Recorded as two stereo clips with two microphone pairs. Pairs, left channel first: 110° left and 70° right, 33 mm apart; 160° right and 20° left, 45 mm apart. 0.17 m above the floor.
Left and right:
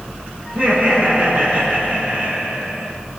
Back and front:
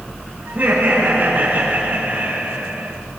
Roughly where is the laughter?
Ahead right.